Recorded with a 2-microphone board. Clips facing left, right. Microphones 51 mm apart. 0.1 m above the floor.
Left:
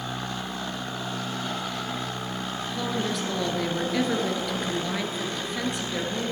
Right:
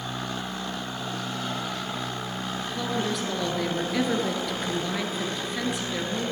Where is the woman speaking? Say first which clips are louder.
Even; centre (ahead or behind), 1.6 m.